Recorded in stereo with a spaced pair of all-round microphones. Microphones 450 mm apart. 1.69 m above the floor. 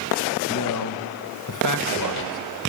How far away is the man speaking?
About 1.5 m.